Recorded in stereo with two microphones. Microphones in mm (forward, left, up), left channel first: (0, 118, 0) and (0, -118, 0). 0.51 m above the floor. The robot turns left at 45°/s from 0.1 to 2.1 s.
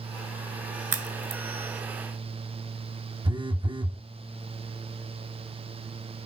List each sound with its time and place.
0.9 s a crack: 75° right (ahead or behind), 0.5 m; by 1.4 s 60° right (ahead or behind), 0.5 m
3.2 s a phone buzzing: 20° right (ahead or behind), 0.7 m